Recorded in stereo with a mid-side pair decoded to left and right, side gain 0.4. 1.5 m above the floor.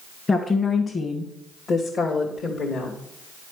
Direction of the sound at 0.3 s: 40° left.